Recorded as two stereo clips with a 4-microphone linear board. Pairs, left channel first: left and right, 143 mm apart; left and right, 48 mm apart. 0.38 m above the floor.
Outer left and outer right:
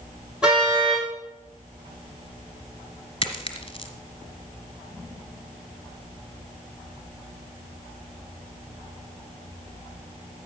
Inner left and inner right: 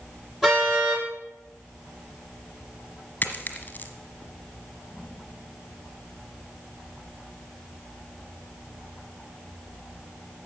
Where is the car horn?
5° right (ahead or behind), 7 m.